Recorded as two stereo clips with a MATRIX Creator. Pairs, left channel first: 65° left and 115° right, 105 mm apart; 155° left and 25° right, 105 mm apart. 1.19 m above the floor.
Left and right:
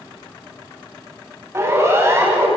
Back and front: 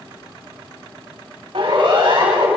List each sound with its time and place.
1.5 s a siren: 55° right, 9.5 m